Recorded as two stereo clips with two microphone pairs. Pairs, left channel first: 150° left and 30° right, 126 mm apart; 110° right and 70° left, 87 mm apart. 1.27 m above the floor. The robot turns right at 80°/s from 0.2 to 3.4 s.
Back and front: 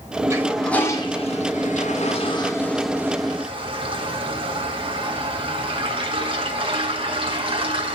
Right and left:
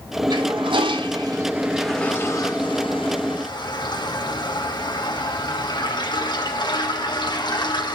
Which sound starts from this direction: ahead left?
A toilet flushing, at 0.3 s.